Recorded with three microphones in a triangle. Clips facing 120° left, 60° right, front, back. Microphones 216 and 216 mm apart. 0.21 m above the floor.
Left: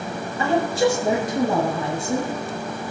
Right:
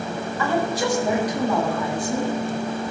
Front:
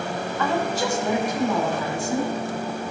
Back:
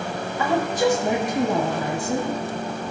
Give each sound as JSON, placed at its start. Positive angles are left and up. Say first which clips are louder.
{"t": 0.4, "sound": "a woman speaking", "louder": "left 4 dB, back 4 dB", "azimuth_deg": 120, "distance_m": 1.5}